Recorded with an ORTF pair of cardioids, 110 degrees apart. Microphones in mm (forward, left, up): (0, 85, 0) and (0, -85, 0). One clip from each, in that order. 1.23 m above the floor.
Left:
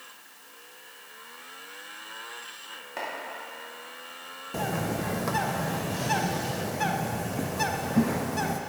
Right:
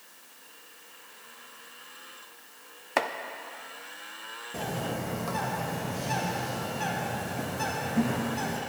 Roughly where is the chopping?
Ahead right.